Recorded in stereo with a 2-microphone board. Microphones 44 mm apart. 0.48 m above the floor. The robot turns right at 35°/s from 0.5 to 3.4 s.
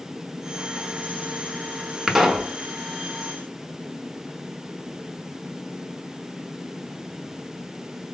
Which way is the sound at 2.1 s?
15° right (ahead or behind).